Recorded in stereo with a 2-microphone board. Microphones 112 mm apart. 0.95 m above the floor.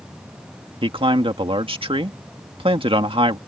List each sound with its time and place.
0.8 s a man speaking: 50° right (ahead or behind)